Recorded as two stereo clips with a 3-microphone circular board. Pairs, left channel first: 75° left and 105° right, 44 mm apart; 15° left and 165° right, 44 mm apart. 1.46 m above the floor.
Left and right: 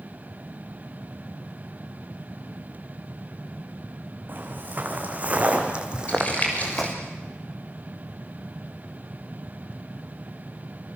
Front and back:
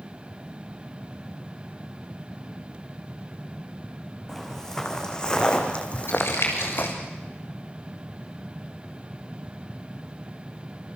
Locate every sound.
4.3 s footsteps: 65° right, 4.5 m; by 7.0 s 15° right, 3 m
6.1 s crumpling: 20° left, 6.5 m